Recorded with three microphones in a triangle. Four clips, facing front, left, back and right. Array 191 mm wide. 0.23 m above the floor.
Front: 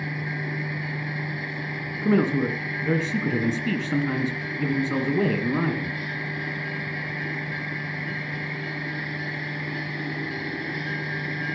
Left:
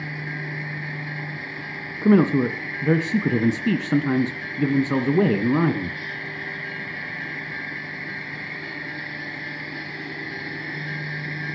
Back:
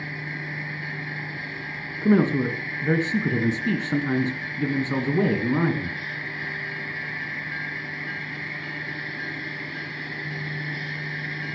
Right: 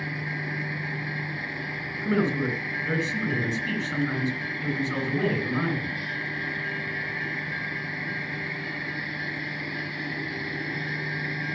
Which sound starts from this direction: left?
A man speaking, at 2.0 s.